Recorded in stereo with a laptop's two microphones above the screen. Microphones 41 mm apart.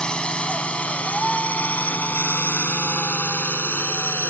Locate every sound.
0.0 s a drone: 25° left (ahead or behind); by 4.3 s 60° left (ahead or behind)